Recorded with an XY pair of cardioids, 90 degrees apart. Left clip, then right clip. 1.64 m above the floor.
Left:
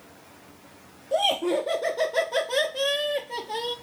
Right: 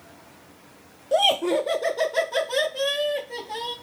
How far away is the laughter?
About 1.0 m.